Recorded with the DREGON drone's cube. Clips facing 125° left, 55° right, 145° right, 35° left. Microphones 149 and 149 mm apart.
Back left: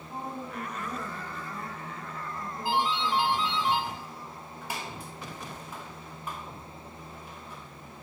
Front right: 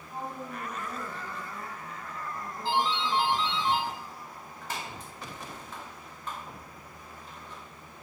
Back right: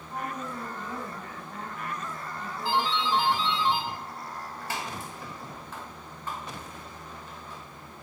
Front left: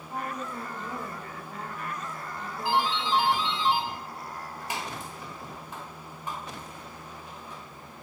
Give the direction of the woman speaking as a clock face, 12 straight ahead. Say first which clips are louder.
Back left 1 dB, even; 10 o'clock.